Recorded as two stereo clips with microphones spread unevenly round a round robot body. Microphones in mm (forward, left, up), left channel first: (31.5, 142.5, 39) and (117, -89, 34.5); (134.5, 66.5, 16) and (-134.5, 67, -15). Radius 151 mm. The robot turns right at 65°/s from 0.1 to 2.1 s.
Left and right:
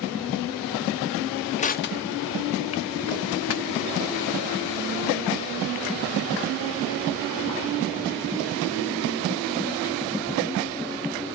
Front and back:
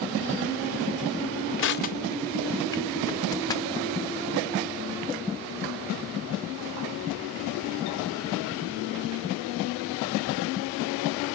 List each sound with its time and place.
1.6 s crushing: 45° left, 0.7 m; by 3.9 s 75° left, 0.7 m